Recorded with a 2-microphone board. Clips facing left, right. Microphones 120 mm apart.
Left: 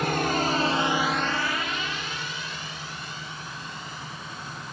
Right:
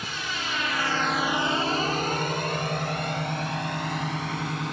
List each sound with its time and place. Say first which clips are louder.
0.0 s a drone: left 10 dB; 60° left (ahead or behind); by 4.7 s 70° right (ahead or behind)